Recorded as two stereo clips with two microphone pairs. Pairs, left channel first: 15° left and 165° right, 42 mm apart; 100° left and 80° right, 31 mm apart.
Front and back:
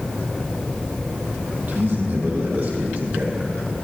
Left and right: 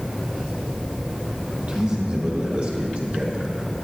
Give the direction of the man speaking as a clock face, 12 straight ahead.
4 o'clock.